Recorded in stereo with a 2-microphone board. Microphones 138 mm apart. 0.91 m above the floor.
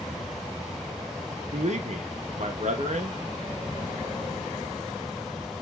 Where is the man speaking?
60° right (ahead or behind), 0.7 m.